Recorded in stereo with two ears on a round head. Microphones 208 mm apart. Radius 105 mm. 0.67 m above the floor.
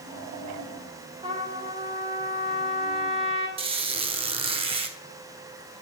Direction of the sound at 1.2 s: 25° right (ahead or behind).